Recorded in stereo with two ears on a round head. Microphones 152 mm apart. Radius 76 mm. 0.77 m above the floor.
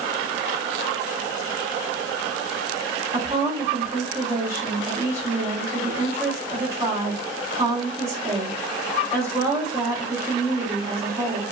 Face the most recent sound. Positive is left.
turn(degrees=-15)  # may be behind; listen again after turning